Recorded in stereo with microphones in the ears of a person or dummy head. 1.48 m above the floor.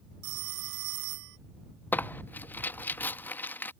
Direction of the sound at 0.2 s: 55° right (ahead or behind).